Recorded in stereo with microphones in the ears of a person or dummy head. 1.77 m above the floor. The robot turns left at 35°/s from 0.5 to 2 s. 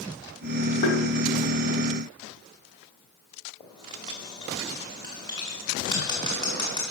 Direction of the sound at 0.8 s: 35° left (ahead or behind).